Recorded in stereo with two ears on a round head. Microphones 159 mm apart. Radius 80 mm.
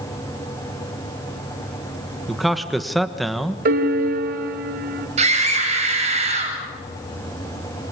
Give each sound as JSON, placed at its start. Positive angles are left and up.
{"t": 2.3, "sound": "a man speaking", "side_deg": 0, "distance_m": 1.3}
{"t": 3.6, "sound": "a piano", "side_deg": -55, "distance_m": 2.5}
{"t": 5.2, "sound": "a scream", "side_deg": -40, "distance_m": 8.0}